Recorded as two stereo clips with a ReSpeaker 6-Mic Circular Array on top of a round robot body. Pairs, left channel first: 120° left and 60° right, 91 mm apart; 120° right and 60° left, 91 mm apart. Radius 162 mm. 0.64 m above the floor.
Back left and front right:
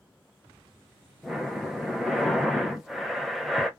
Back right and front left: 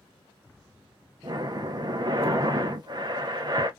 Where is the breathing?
25° left, 0.7 m.